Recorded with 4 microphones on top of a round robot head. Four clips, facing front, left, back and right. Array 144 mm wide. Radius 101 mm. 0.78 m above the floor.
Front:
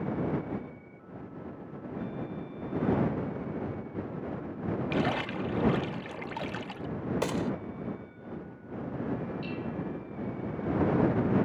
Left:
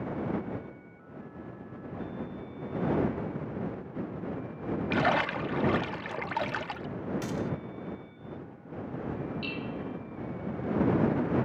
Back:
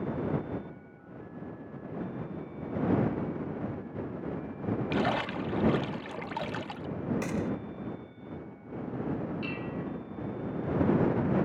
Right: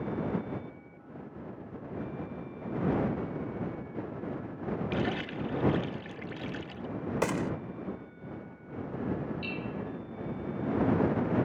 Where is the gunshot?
60° right.